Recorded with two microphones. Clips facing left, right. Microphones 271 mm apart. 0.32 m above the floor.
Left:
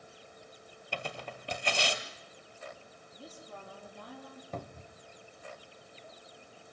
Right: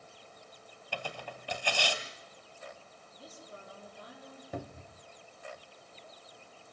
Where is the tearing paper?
20° left (ahead or behind), 1.9 m.